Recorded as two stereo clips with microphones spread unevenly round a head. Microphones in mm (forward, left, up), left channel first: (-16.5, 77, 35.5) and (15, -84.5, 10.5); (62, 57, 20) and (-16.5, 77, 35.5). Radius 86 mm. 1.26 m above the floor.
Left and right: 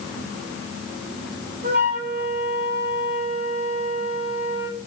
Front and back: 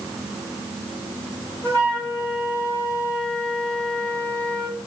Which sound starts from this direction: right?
A flute, at 1.6 s.